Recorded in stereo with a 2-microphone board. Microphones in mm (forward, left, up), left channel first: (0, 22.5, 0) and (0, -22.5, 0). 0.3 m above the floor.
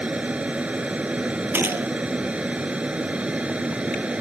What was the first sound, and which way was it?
An aircraft, 25° right (ahead or behind).